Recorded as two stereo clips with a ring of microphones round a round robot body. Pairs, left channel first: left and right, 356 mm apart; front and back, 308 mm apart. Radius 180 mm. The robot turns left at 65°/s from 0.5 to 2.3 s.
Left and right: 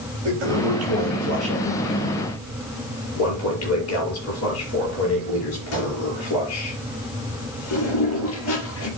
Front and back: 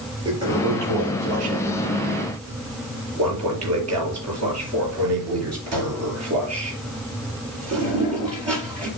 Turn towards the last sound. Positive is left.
turn(degrees=140)